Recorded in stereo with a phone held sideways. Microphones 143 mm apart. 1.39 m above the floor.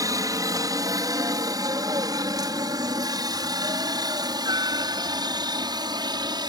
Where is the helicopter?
25° right (ahead or behind); by 6.5 s 30° right (ahead or behind).